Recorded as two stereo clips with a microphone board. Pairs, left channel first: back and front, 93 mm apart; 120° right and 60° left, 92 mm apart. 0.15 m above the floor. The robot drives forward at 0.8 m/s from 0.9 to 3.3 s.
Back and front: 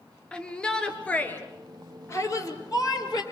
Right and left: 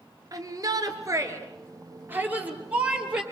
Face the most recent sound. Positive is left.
turn(degrees=140)